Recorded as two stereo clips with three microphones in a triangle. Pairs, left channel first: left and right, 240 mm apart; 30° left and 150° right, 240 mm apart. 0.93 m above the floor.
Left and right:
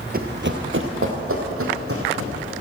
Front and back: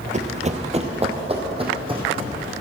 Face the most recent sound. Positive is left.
turn(degrees=-80)